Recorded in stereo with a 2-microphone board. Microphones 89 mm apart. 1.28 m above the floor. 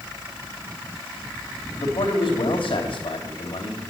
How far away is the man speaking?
About 3.5 m.